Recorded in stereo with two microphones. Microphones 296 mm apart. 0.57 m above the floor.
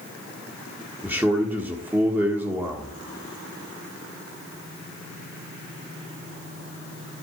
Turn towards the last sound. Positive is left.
turn(degrees=-5)  # may be behind; listen again after turning